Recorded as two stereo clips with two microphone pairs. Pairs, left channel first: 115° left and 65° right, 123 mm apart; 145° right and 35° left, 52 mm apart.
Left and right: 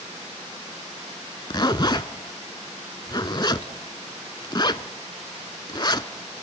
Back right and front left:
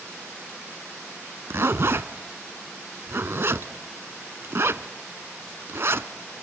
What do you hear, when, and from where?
1.5 s a zipper: 65° left, 0.6 m